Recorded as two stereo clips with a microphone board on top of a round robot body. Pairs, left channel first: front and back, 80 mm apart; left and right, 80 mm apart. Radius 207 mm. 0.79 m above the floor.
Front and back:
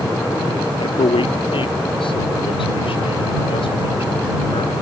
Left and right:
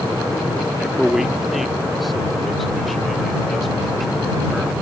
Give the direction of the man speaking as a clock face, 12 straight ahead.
12 o'clock.